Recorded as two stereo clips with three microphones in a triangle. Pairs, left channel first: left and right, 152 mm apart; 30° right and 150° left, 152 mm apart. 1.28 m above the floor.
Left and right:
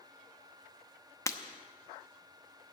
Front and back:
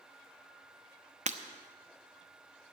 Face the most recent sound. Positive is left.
turn(degrees=150)